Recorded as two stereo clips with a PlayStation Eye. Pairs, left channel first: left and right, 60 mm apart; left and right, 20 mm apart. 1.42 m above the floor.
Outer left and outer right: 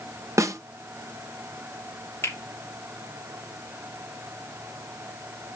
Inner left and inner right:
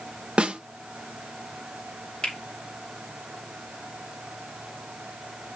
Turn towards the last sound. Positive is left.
turn(degrees=45)  # may be behind; listen again after turning